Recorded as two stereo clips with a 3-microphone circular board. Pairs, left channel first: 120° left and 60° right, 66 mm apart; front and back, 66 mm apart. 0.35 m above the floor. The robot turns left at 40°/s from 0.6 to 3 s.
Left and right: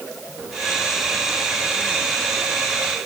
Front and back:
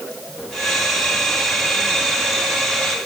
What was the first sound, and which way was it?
Only background noise.